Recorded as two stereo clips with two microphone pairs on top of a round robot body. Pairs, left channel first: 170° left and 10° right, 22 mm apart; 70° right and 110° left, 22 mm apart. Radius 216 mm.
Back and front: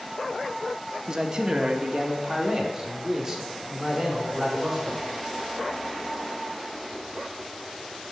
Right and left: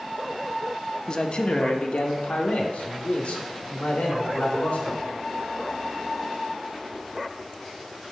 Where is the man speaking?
65° right, 1.1 m; by 5.0 s 95° right, 3 m.